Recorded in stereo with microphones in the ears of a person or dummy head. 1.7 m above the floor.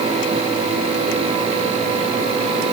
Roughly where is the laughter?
No laughter in this recording.